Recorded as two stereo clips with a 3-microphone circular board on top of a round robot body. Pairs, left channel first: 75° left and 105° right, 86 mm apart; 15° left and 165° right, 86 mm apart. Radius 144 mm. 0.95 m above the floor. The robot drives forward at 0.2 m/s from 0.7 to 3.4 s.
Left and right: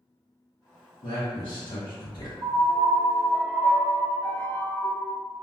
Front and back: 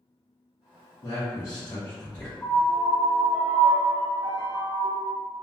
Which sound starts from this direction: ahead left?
A man speaking, at 1.0 s.